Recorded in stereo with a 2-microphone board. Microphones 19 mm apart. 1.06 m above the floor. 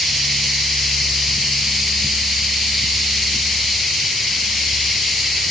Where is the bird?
I don't hear a bird.